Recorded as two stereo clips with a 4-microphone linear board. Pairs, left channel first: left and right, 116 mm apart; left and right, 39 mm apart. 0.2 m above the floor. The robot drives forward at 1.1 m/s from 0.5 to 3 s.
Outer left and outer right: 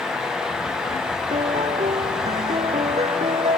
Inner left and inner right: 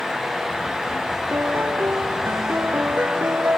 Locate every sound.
1.3 s a piano: 75° right (ahead or behind)